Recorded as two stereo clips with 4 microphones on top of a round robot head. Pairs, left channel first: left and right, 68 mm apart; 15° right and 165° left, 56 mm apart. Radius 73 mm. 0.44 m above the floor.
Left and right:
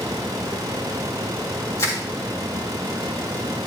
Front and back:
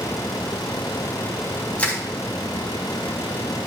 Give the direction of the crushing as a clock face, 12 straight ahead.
10 o'clock.